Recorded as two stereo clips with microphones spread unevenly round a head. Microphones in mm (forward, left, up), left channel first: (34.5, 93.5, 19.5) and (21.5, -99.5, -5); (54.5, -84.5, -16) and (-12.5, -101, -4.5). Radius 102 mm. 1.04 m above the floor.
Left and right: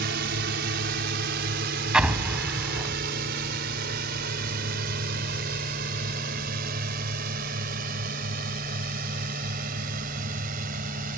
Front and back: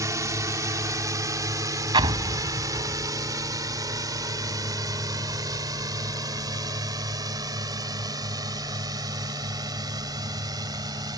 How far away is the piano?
No piano in this recording.